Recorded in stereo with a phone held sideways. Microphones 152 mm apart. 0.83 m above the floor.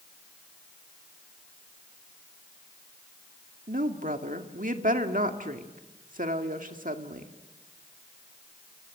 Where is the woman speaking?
60° right (ahead or behind), 2 m.